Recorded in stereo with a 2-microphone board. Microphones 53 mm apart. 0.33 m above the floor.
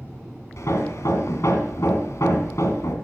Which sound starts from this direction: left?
Hammering, at 0.6 s.